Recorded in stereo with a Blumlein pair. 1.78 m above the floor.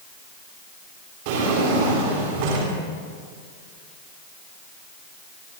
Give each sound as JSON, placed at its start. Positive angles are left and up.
{"t": 1.2, "sound": "a drawer", "azimuth_deg": -50, "distance_m": 8.5}